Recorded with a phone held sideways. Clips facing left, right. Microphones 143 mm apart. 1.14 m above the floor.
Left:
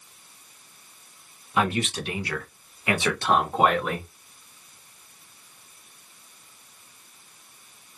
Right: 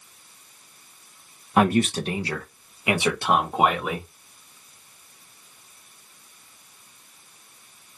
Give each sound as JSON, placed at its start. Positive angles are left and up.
{"t": 1.6, "sound": "a man speaking", "side_deg": -55, "distance_m": 0.6}